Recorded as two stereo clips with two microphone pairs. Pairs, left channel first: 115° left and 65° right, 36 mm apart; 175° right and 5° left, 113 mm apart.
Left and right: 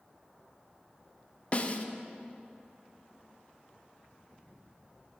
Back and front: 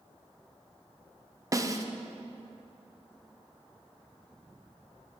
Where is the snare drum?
70° left, 1.0 m.